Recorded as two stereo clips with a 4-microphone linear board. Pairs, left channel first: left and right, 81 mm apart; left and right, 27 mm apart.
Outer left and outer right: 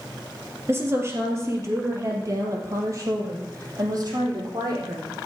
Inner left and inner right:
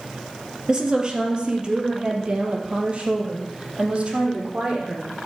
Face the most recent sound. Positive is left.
turn(degrees=-45)  # may be behind; listen again after turning